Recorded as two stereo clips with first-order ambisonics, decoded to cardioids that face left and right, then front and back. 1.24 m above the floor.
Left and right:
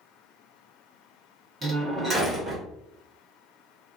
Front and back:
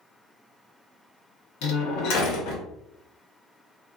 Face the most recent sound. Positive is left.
turn(degrees=-10)